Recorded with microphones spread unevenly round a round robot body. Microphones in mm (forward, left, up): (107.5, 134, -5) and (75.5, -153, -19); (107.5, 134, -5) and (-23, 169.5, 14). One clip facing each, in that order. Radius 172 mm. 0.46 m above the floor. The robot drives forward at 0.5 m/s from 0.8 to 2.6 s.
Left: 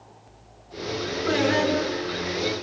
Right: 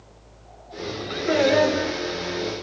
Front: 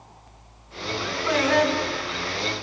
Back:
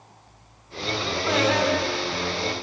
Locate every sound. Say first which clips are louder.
1.3 s singing: right 3 dB, front 1 dB; 90° left, 3.5 m; by 2.4 s 100° left, 3.5 m